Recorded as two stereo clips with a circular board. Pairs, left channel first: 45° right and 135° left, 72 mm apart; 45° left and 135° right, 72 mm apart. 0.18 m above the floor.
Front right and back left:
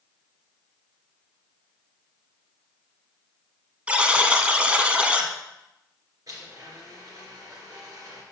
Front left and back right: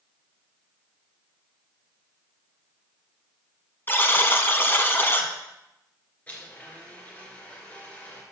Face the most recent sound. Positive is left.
turn(degrees=110)